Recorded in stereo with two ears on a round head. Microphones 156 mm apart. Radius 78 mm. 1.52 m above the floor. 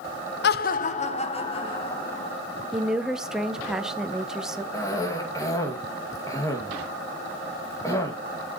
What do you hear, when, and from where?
0.4 s laughter: 60° left (ahead or behind), 0.6 m; by 2.3 s 25° left (ahead or behind), 2.5 m
2.7 s a woman speaking: 5° right (ahead or behind), 0.9 m
4.7 s a cough: 20° left (ahead or behind), 2 m